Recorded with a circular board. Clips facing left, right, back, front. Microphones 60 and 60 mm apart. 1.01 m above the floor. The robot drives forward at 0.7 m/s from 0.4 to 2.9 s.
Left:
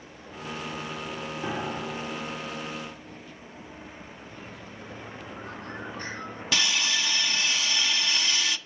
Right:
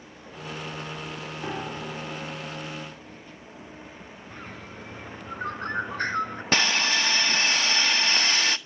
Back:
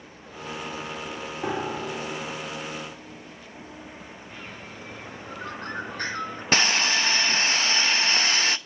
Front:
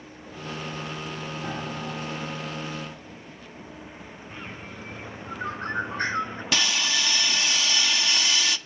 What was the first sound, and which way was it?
A piano, straight behind.